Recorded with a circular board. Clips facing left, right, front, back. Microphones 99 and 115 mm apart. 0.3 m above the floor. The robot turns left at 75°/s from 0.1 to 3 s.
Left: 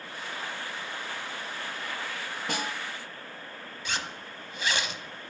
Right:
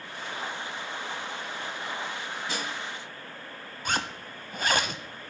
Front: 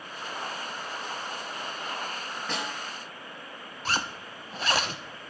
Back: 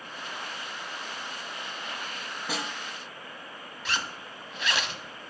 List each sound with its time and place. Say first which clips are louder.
2.5 s a snare drum: left 3 dB, even; 100° left, 1.6 m; by 2.7 s 80° left, 1.6 m
3.9 s a zipper: right 5 dB, front 3 dB; 50° right, 0.6 m